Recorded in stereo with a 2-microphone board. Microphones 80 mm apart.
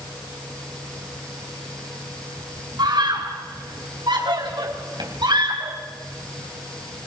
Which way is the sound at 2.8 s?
65° right (ahead or behind).